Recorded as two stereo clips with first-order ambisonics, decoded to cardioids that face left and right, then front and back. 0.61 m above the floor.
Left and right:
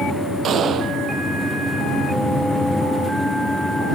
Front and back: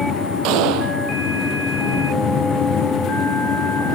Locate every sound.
0.4 s a gunshot: 150° right